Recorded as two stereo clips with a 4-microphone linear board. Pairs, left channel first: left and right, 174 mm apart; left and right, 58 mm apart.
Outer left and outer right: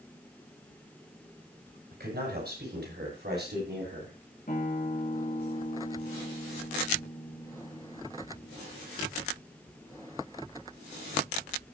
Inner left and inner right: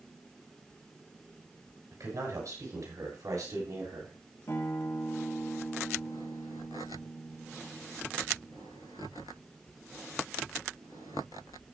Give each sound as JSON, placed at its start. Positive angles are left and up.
{"t": 1.9, "sound": "a man speaking", "side_deg": -65, "distance_m": 7.0}
{"t": 4.5, "sound": "a guitar", "side_deg": 50, "distance_m": 3.5}